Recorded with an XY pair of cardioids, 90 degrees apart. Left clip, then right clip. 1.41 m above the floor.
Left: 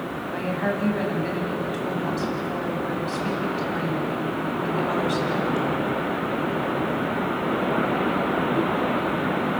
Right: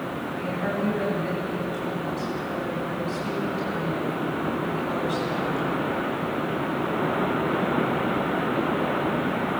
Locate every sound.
0.3 s a woman speaking: 45° left, 9 m